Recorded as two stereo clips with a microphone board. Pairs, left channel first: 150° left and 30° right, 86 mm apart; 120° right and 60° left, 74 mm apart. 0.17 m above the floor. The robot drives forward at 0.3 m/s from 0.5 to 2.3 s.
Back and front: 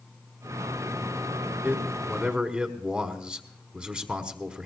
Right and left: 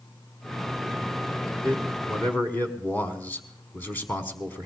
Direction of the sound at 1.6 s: 75° right.